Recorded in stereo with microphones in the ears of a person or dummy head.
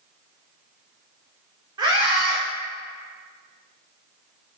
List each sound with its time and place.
1.8 s a scream: 30° right (ahead or behind), 1.0 m